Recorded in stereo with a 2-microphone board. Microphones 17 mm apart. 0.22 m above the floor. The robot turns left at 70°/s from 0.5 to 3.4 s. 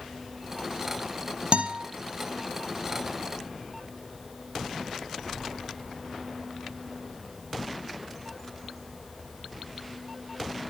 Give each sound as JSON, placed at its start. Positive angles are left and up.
{"t": 1.5, "sound": "a guitar", "side_deg": -75, "distance_m": 1.1}